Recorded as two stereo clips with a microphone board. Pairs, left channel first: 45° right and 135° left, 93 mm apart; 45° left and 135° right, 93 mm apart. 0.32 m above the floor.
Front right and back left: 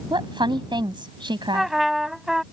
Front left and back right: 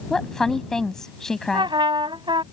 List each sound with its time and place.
0.1 s a woman speaking: 130° left
1.5 s a trumpet: 140° right